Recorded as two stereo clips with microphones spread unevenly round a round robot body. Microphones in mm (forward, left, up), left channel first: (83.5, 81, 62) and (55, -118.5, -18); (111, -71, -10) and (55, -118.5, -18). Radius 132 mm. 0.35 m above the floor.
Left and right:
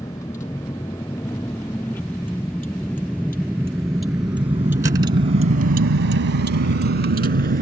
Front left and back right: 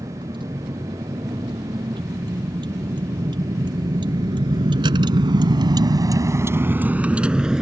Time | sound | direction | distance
0.0 | a vehicle | 160° left | ?